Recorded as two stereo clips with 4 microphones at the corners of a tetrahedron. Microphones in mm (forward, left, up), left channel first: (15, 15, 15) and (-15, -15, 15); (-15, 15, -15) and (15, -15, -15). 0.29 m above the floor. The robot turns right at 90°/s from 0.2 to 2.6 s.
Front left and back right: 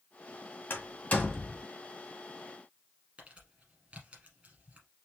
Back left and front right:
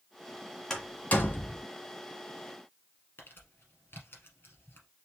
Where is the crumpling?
170° left, 2.5 m.